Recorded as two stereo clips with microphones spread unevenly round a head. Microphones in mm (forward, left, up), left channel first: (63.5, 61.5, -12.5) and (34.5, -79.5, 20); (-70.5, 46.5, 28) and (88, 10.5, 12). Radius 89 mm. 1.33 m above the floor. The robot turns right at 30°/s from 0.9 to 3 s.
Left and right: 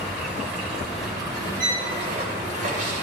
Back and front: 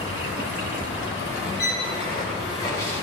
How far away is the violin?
About 1.7 m.